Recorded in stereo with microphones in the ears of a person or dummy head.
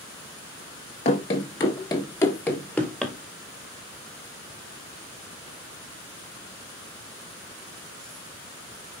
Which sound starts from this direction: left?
Running footsteps, at 1.1 s.